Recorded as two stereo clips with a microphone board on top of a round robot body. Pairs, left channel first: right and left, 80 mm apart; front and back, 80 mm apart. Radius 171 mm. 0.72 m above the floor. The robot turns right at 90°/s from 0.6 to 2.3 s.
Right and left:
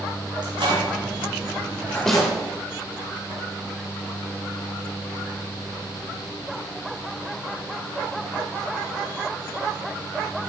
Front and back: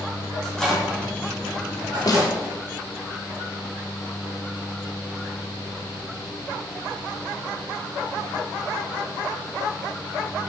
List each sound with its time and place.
0.4 s a microwave: 85° left, 2 m; by 2.3 s 125° right, 2 m
2.1 s a snare drum: 10° right, 1.4 m; by 2.3 s 15° left, 1.4 m